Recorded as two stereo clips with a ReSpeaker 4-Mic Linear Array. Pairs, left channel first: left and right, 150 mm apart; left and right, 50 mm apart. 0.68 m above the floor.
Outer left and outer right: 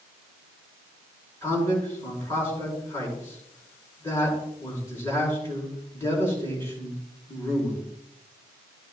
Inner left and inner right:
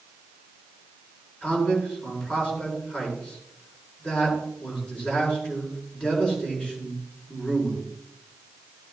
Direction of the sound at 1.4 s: 20° left (ahead or behind).